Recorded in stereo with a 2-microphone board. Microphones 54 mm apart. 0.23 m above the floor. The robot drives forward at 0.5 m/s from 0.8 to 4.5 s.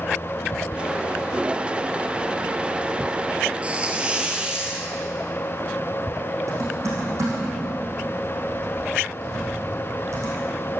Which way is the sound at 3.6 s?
25° right (ahead or behind).